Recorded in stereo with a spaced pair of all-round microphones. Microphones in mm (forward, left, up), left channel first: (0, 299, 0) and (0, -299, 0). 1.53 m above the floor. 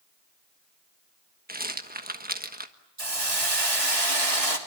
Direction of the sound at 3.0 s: 65° right (ahead or behind).